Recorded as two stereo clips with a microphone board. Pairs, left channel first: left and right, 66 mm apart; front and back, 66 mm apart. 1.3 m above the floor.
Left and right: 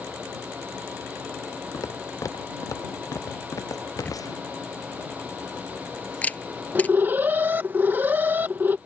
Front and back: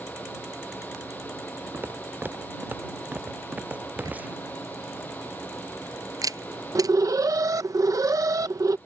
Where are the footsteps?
120° left; by 4.5 s 115° left.